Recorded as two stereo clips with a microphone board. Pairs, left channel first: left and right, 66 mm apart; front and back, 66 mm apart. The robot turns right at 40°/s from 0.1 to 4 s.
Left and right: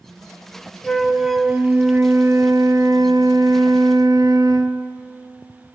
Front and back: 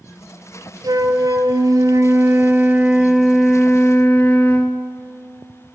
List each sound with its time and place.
0.8 s a flute: 175° left, 1.2 m; by 4.8 s 60° right, 1.2 m